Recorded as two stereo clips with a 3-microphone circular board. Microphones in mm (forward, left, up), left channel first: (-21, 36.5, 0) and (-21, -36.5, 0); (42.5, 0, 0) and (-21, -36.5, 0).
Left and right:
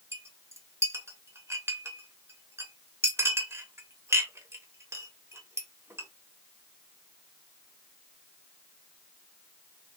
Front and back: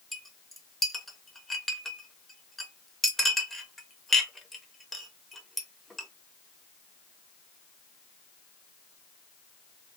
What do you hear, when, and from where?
0.1 s a clink: 55° right, 0.6 m